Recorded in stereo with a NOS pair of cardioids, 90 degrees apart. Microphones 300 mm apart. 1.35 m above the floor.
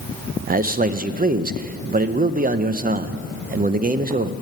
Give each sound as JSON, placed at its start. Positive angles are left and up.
{"t": 0.5, "sound": "a man speaking", "azimuth_deg": -30, "distance_m": 0.7}